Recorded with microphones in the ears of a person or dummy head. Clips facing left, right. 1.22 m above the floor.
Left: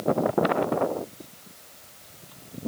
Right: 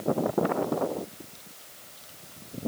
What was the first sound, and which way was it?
Only background noise.